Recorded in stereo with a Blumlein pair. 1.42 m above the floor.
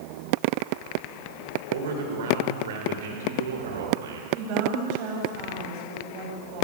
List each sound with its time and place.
1.7 s a man speaking: 55° right, 6.5 m; by 4.2 s 65° right, 5.5 m
4.3 s a woman speaking: 40° right, 8 m